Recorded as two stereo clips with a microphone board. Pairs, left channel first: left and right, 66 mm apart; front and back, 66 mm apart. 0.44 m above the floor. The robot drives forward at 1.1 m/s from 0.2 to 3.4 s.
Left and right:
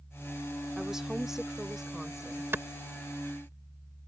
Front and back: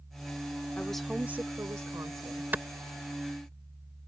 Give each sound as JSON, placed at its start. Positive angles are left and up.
{"t": 0.8, "sound": "a woman speaking", "azimuth_deg": -20}
{"t": 2.5, "sound": "a clap", "azimuth_deg": -125}